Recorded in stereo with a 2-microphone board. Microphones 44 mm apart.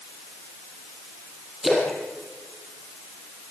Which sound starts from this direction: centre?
A splash, at 1.6 s.